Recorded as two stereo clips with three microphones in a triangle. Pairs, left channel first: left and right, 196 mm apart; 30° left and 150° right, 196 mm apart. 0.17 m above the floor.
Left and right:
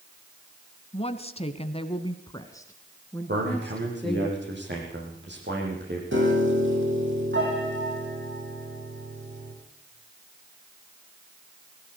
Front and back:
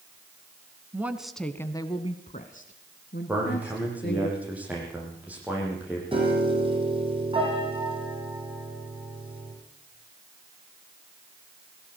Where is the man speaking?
65° right, 7.5 m.